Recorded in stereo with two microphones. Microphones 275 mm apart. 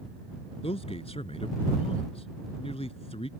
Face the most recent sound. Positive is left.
turn(degrees=20)  # may be behind; listen again after turning